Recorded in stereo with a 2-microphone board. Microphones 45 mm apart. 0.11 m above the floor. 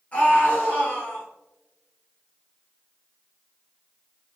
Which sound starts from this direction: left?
A scream, at 0.1 s.